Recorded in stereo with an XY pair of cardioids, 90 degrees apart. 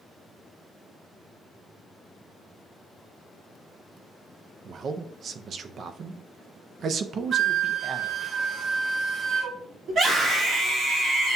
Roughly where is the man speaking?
Ahead right.